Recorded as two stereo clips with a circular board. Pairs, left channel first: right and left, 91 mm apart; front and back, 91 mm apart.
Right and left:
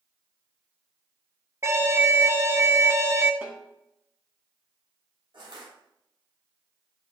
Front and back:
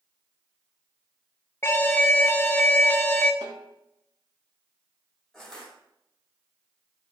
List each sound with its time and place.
1.6 s an alarm: 50° left, 0.8 m
3.4 s a snare drum: 160° left, 2 m
5.3 s crushing: 85° left, 3.5 m